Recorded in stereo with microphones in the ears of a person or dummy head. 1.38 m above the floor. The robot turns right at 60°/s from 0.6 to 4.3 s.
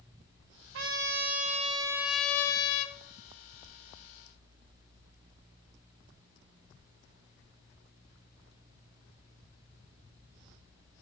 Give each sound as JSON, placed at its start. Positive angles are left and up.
{"t": 0.7, "sound": "a trumpet", "azimuth_deg": -90, "distance_m": 1.1}